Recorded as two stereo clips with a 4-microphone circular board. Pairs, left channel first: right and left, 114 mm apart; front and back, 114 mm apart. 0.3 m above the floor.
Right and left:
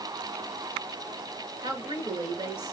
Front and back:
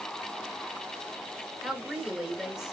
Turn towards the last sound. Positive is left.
turn(degrees=95)